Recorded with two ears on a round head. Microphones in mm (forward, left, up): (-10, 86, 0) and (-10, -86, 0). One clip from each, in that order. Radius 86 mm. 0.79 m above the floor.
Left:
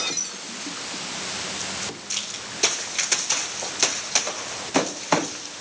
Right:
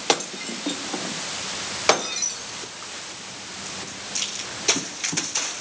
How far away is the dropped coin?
I don't hear a dropped coin.